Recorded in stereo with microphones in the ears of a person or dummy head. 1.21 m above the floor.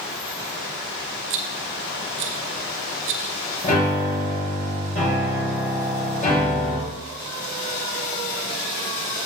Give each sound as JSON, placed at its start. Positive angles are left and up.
{"t": 1.3, "sound": "a rattle", "side_deg": -45, "distance_m": 0.8}
{"t": 3.6, "sound": "a piano", "side_deg": 45, "distance_m": 5.0}